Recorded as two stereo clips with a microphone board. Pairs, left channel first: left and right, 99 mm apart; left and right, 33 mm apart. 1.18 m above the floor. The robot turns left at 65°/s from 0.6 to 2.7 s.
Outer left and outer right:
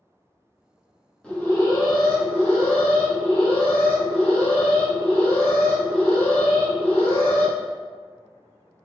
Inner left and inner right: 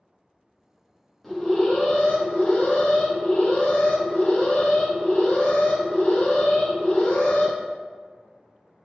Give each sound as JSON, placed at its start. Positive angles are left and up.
{"t": 1.2, "sound": "an alarm", "azimuth_deg": 170, "distance_m": 1.2}